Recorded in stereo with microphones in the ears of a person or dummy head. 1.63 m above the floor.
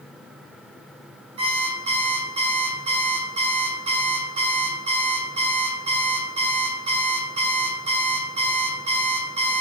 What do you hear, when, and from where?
1.4 s an alarm clock: 35° right (ahead or behind), 4.5 m